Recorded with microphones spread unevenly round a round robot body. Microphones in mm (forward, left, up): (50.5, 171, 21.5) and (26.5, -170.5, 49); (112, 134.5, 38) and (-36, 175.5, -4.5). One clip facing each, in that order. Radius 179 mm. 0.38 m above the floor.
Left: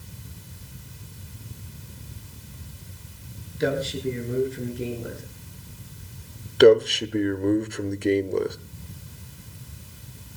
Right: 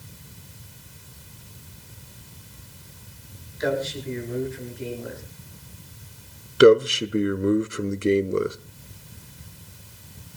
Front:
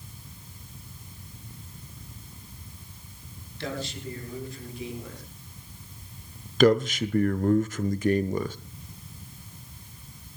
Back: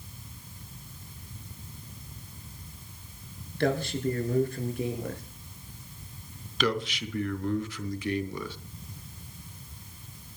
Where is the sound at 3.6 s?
140° left, 6 m; by 5.2 s 135° left, 7 m.